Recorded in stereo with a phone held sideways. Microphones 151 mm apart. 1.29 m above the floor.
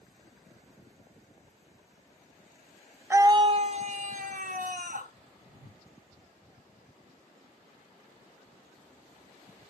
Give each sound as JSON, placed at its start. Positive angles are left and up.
{"t": 3.1, "sound": "a scream", "side_deg": -15, "distance_m": 0.5}
{"t": 5.5, "sound": "a whoosh", "side_deg": -70, "distance_m": 3.5}